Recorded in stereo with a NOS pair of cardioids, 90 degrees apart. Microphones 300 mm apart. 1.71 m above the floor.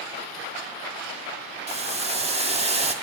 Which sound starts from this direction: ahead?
Boiling, at 1.7 s.